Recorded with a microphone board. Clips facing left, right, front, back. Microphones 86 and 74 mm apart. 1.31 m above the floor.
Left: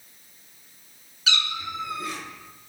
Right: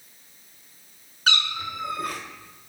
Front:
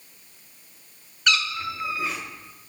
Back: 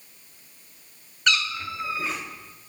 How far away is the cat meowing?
About 1.4 m.